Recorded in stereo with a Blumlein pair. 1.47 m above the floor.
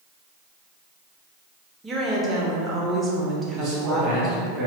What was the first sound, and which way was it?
A woman speaking, 10° right.